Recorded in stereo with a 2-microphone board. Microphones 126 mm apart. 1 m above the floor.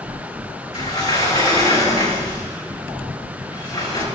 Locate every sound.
0.7 s a sliding door: 35° left (ahead or behind), 3.5 m